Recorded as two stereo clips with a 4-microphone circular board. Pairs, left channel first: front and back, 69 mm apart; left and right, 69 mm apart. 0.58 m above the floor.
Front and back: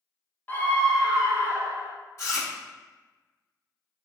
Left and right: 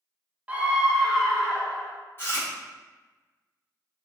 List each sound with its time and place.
0.5 s a scream: 40° right, 0.8 m; by 1.9 s 150° left, 1.0 m
2.2 s chewing: 40° left, 1.7 m